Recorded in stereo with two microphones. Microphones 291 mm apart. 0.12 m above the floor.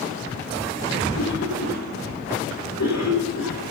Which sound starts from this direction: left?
A cough, at 1.1 s.